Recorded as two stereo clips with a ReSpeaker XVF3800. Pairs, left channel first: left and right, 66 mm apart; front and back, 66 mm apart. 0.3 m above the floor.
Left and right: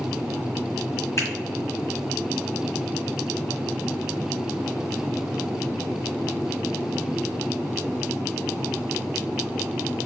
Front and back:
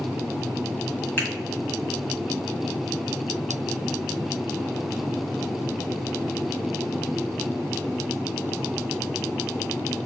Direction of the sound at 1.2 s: 55° left.